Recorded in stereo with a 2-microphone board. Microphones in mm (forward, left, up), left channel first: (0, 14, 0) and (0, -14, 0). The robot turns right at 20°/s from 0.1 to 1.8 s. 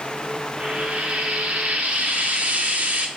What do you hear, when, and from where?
0.6 s frying: 40° right (ahead or behind), 0.9 m; by 3.1 s 55° right (ahead or behind), 0.9 m